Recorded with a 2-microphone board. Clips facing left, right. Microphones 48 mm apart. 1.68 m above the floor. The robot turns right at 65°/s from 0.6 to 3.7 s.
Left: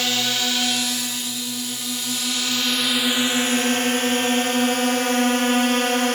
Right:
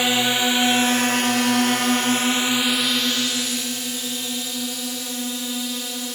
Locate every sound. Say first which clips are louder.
0.0 s a drone: right 3 dB; 20° right (ahead or behind); by 6.2 s 60° left (ahead or behind)